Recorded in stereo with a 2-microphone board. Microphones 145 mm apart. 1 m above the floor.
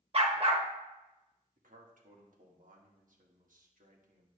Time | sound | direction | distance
0.1 | a dog barking | 45° right (ahead or behind) | 1.0 m
1.6 | a man speaking | 75° right (ahead or behind) | 1.6 m